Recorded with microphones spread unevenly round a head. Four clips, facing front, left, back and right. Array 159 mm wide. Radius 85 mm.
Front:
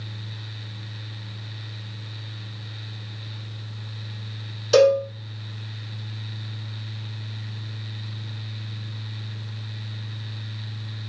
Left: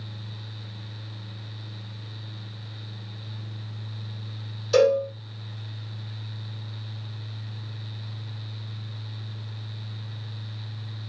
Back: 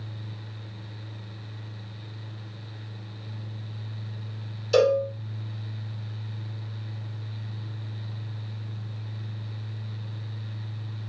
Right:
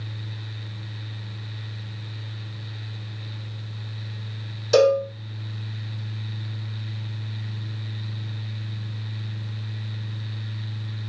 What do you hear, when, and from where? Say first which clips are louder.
4.7 s a cowbell: right 2 dB, front 4 dB; 40° right, 1.8 m